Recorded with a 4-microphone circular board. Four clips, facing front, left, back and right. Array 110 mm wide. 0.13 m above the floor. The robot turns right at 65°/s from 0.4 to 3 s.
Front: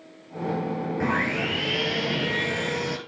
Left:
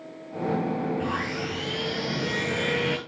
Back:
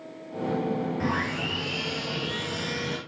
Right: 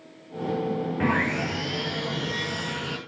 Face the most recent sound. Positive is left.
turn(degrees=70)